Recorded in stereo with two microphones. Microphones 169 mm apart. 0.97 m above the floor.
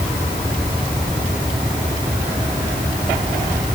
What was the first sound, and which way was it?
Only background noise.